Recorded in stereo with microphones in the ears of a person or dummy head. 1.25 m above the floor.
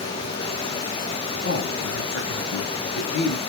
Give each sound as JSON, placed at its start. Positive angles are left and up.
{"t": 1.4, "sound": "a man speaking", "side_deg": 55, "distance_m": 1.0}